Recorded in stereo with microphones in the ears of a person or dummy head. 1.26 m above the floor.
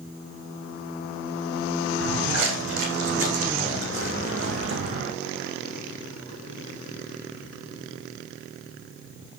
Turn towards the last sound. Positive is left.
turn(degrees=-65)  # may be behind; listen again after turning